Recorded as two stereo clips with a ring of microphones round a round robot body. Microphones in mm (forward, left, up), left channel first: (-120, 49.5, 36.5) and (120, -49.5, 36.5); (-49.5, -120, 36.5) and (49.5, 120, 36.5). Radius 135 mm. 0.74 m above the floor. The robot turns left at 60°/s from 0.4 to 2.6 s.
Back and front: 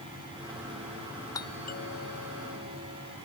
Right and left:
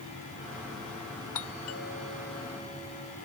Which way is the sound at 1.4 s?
125° right.